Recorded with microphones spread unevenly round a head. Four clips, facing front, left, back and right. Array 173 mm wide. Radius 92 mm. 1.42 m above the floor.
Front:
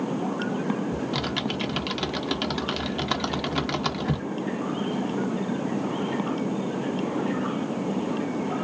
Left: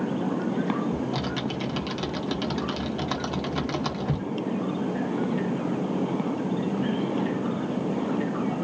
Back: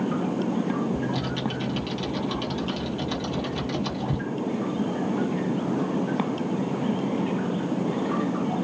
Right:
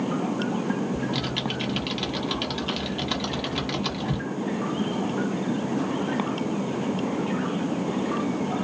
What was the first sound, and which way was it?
Typing on a keyboard, 20° left.